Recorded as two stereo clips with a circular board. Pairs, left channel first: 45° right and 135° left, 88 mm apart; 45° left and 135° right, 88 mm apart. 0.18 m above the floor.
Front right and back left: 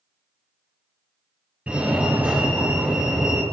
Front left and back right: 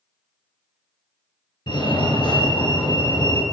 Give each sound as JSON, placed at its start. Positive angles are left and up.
{"t": 1.7, "sound": "a fire alarm", "azimuth_deg": 60, "distance_m": 5.0}